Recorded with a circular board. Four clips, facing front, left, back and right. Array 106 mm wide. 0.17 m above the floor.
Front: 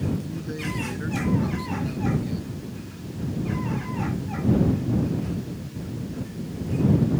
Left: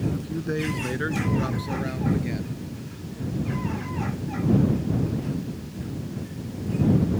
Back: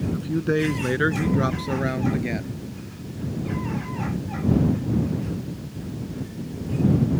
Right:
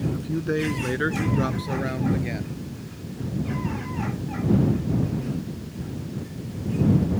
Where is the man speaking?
165° right; by 2.5 s 160° right.